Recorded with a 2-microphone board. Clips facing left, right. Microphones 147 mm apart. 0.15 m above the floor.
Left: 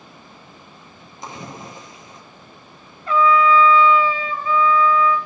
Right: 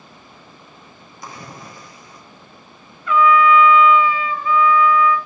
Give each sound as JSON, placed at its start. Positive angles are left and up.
{"t": 1.2, "sound": "a splash", "side_deg": 25, "distance_m": 1.6}
{"t": 3.1, "sound": "a trumpet", "side_deg": 35, "distance_m": 0.6}